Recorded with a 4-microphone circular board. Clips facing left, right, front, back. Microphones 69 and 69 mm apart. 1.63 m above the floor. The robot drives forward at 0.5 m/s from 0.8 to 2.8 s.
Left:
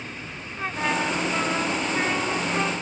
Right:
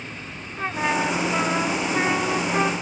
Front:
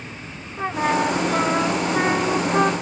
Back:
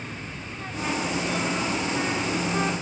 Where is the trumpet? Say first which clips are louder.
Right 2 dB, front 9 dB; 15° right; by 2.7 s 20° right.